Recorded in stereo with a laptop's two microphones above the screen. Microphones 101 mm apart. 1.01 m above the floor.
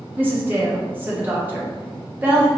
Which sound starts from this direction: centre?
A woman speaking, at 0.2 s.